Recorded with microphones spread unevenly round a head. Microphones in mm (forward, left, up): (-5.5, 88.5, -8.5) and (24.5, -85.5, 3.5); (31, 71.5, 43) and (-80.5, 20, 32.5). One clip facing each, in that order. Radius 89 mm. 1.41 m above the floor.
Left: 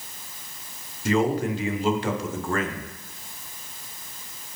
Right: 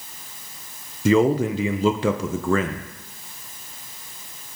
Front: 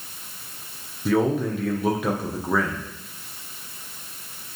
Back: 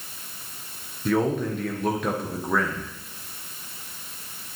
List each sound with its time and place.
1.1 s a man speaking: 60° right, 0.9 m